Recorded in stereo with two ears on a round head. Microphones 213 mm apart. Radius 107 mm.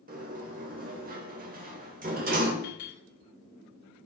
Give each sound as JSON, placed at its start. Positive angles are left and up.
{"t": 0.1, "sound": "a sliding door", "side_deg": -40, "distance_m": 2.0}
{"t": 2.6, "sound": "a clink", "side_deg": 55, "distance_m": 6.0}